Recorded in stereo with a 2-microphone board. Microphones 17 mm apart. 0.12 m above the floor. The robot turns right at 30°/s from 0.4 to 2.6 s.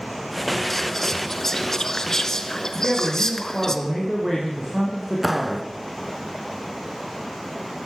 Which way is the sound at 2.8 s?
25° right (ahead or behind).